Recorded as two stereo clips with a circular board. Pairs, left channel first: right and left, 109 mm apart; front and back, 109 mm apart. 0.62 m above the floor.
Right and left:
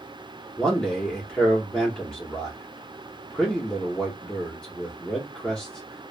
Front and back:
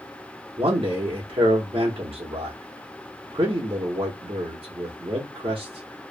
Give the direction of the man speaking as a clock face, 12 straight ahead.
6 o'clock.